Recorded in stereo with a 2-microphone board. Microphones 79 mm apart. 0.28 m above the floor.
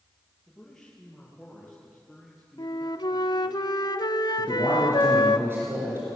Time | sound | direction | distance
0.5 | a man speaking | 5° left (ahead or behind) | 8 m
2.6 | a flute | 65° left (ahead or behind) | 0.7 m
4.4 | a man speaking | 30° right (ahead or behind) | 5.5 m